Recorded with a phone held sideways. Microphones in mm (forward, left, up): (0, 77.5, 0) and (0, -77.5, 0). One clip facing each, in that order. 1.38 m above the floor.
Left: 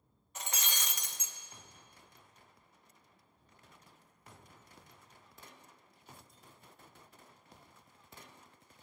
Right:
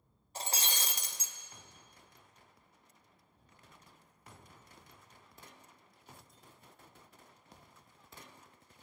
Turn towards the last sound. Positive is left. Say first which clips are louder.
# right 3 dB
turn(degrees=-35)  # may be behind; listen again after turning